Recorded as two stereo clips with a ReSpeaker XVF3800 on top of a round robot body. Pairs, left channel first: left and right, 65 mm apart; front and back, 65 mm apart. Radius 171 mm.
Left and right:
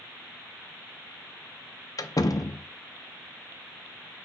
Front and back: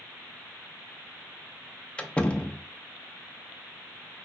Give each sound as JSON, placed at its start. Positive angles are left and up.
{"t": 2.0, "sound": "a door slam", "azimuth_deg": 70, "distance_m": 0.7}